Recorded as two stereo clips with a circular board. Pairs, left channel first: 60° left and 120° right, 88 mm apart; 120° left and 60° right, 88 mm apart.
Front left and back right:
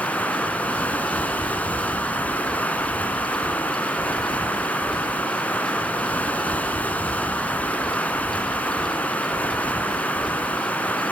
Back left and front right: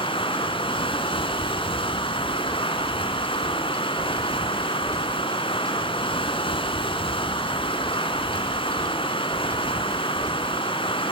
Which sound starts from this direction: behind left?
Running water, at 0.0 s.